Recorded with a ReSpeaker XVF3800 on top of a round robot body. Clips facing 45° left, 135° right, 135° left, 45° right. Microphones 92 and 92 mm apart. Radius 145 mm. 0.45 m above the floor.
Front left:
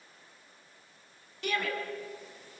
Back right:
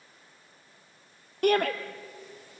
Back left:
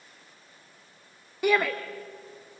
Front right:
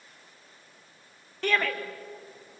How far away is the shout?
About 1.4 m.